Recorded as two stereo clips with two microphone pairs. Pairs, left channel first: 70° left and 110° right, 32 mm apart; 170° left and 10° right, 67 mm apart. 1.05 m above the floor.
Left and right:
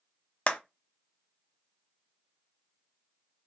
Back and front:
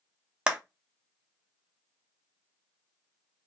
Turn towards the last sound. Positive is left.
turn(degrees=55)